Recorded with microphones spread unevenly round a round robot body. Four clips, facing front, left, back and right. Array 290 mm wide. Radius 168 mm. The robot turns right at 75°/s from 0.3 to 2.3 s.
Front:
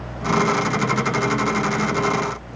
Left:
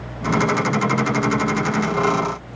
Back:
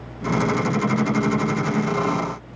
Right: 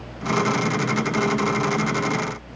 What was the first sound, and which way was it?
Only background noise.